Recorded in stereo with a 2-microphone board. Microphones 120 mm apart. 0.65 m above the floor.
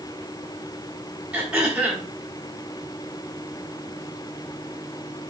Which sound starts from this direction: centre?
Throat clearing, at 1.3 s.